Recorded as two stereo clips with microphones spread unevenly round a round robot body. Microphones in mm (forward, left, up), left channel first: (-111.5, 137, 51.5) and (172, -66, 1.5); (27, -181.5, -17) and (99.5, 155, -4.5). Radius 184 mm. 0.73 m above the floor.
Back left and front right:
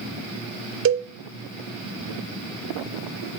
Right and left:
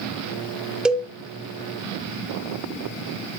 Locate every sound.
0.8 s a cowbell: 10° right, 1.2 m